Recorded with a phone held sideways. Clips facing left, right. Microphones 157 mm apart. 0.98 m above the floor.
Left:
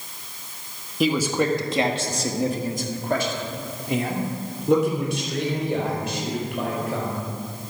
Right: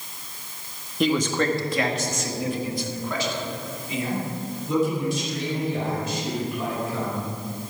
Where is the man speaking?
5° left (ahead or behind), 1.6 m; by 7.3 s 85° left, 5 m.